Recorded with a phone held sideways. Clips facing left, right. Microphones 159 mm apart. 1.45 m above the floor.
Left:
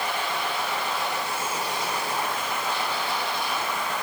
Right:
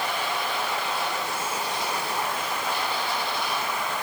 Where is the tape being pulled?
I don't hear tape being pulled.